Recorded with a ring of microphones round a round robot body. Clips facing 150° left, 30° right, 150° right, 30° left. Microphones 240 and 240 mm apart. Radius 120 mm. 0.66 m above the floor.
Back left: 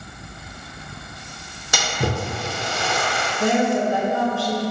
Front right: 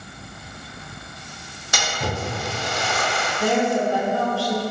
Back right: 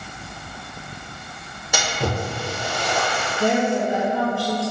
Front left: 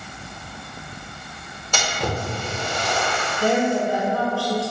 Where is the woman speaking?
175° left, 0.6 m.